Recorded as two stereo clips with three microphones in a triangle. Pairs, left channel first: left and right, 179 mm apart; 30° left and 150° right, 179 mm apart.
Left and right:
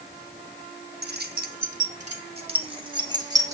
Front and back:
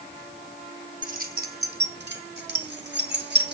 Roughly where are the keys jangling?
Right.